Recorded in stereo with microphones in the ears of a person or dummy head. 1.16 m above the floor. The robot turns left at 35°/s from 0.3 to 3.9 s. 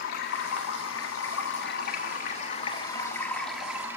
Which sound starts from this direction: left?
Running water, at 0.0 s.